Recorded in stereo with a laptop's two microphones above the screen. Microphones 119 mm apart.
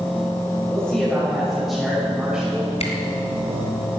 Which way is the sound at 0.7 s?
10° left (ahead or behind).